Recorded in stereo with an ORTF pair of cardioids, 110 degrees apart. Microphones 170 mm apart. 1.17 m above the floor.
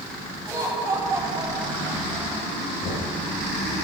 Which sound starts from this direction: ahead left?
Knocking, at 2.8 s.